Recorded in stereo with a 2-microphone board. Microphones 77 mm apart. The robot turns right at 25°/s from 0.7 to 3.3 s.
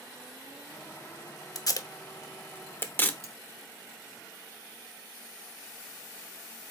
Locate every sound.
1.6 s tape being pulled: 50° left (ahead or behind), 0.6 m; by 3.1 s 25° left (ahead or behind), 0.6 m
3.2 s cutlery clinking: 40° right (ahead or behind), 0.5 m